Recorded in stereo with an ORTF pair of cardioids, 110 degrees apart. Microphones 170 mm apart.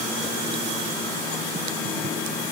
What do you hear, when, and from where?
Only background noise.